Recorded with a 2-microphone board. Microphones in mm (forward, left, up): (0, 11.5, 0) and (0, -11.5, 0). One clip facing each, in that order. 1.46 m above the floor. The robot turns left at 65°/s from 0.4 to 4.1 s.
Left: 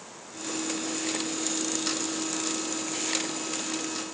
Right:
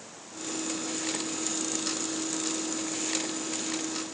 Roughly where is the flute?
No flute in this recording.